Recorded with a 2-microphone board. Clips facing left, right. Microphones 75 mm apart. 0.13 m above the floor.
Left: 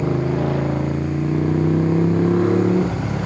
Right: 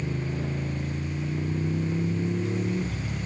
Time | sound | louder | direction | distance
0.0 | a motorcycle | left 11 dB | 85° left | ?